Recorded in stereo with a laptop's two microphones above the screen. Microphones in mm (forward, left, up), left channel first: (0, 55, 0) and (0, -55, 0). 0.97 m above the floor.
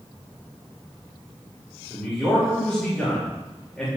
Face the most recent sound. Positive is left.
turn(degrees=5)  # may be behind; listen again after turning